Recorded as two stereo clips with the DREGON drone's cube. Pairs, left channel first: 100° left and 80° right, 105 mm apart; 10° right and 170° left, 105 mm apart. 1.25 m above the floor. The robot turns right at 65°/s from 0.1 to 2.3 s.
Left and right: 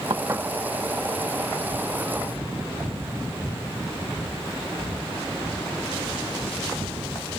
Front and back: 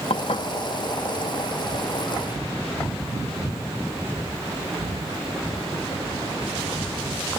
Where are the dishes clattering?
35° right; by 0.5 s 10° right.